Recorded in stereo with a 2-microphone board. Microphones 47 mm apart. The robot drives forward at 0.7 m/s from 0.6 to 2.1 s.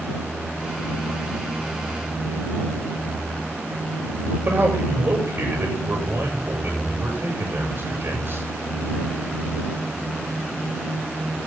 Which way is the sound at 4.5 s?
50° right (ahead or behind).